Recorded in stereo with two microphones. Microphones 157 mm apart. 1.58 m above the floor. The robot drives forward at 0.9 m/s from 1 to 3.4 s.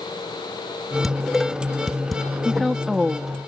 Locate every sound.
1.0 s dishes clattering: centre (ahead or behind)
2.5 s a woman speaking: centre (ahead or behind)